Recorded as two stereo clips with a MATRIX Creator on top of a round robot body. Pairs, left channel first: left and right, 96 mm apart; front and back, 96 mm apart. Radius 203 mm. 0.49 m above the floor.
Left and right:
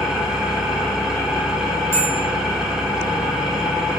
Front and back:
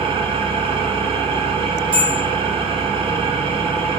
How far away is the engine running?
About 1.5 m.